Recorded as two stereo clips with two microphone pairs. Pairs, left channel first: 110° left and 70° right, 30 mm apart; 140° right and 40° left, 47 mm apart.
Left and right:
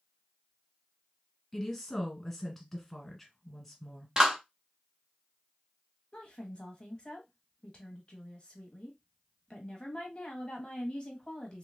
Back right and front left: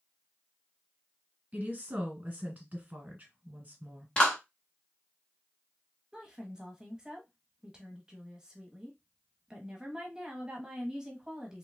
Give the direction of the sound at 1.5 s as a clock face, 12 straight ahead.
11 o'clock.